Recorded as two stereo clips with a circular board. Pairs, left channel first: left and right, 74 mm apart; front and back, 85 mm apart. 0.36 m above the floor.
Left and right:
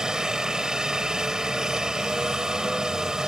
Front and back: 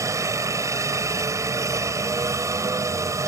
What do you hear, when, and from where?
0.0 s a helicopter: 165° right